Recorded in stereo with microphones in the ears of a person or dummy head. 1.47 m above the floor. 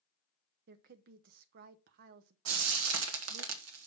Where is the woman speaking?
60° right (ahead or behind), 0.6 m.